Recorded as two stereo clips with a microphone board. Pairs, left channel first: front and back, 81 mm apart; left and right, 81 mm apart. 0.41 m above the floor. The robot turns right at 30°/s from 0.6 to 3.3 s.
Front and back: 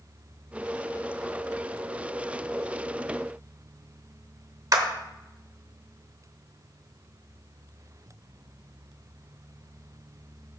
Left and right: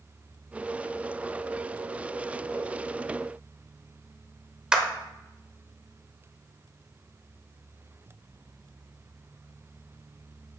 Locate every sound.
4.7 s a clap: 170° right, 0.8 m